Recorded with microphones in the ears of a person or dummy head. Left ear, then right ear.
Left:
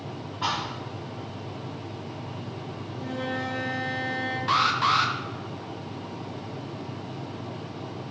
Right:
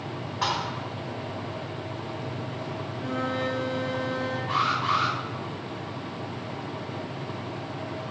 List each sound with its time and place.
0.4 s a thud: 60° right (ahead or behind), 2.5 m
2.9 s a flute: 35° right (ahead or behind), 2.0 m
4.5 s an alarm: 60° left (ahead or behind), 1.1 m